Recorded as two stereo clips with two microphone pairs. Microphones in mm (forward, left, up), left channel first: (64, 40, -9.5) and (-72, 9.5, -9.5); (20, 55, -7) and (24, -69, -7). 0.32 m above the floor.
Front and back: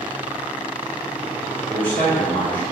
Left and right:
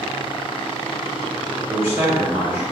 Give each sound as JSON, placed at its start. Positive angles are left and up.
{"t": 1.7, "sound": "a man speaking", "azimuth_deg": -50, "distance_m": 1.0}